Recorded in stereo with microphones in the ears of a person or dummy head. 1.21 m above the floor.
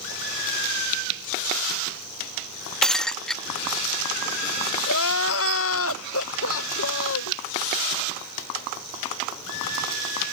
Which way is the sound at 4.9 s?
70° left (ahead or behind).